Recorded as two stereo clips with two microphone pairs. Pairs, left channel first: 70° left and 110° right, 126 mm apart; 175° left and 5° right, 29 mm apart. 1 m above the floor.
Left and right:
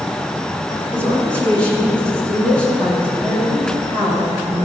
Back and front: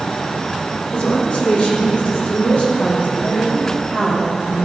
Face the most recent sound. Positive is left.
turn(degrees=150)